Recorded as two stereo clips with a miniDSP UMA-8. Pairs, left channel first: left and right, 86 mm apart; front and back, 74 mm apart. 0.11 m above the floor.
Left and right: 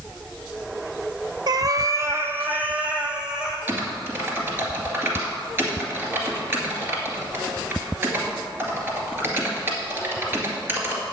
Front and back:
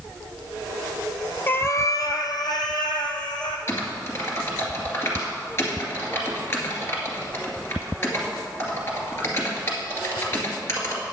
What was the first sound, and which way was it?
A cat meowing, 65° right.